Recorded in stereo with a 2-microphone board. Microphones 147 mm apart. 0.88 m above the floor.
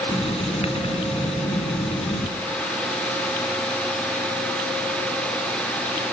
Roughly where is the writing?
Left.